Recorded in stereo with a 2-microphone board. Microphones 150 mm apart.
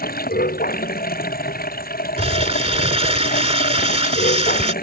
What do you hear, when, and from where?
0.0 s running water: 85° left
2.2 s crumpling: 45° right (ahead or behind)